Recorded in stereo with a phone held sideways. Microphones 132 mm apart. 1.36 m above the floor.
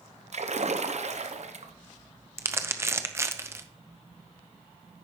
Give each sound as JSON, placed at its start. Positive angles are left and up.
{"t": 0.3, "sound": "a splash", "side_deg": -60, "distance_m": 0.7}
{"t": 2.4, "sound": "crumpling", "side_deg": -20, "distance_m": 0.6}